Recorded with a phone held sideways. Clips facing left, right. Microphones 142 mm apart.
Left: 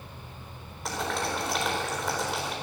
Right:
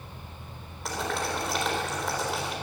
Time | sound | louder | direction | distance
0.8 | boiling | even | centre (ahead or behind) | 4 m